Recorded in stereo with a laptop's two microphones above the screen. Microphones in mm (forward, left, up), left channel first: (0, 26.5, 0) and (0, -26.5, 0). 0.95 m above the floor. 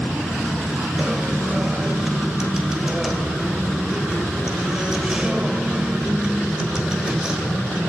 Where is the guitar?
15° right (ahead or behind), 1.6 m.